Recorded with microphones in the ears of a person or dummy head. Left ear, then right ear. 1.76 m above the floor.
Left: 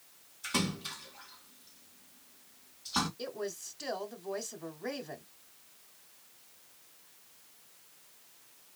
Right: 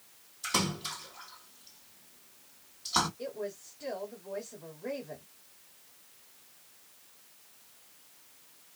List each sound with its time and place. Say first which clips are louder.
0.4 s a splash: right 3 dB; 15° right (ahead or behind), 2.5 m
3.2 s a woman speaking: even; 85° left, 1.1 m